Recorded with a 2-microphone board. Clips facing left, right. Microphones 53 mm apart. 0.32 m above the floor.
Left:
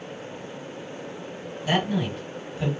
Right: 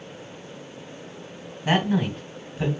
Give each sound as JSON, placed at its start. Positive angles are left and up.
{"t": 1.6, "sound": "a man speaking", "side_deg": -40, "distance_m": 1.5}